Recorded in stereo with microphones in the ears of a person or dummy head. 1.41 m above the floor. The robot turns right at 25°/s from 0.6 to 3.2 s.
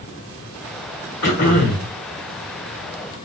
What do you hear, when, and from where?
1.2 s throat clearing: 50° left (ahead or behind), 1.5 m; by 1.9 s 45° left (ahead or behind), 1.5 m